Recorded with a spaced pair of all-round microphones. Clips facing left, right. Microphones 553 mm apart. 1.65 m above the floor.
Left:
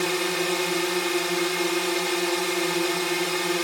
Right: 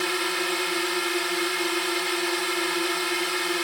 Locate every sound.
0.0 s a drone: 65° left (ahead or behind)